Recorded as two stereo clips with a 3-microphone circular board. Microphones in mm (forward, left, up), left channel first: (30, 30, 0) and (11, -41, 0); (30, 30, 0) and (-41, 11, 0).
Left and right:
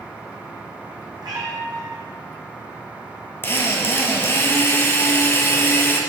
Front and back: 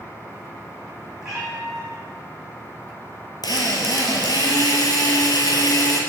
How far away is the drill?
About 1.4 m.